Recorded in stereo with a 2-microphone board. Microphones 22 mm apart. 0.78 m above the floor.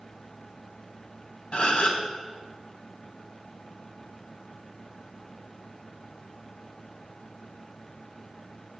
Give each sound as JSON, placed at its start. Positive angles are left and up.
{"t": 1.5, "sound": "a gasp", "side_deg": 60, "distance_m": 3.5}